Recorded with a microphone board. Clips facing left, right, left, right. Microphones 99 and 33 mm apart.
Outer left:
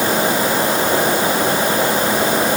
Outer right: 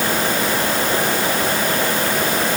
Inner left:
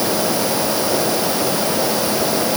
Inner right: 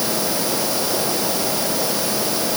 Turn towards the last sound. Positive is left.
No sound to turn to.